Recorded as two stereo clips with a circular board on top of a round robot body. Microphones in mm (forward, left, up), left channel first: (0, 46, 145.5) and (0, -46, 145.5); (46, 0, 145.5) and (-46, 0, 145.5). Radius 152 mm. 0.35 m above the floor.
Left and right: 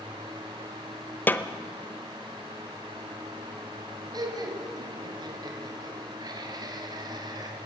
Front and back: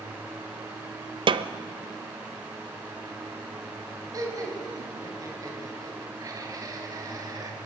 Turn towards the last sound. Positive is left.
turn(degrees=-130)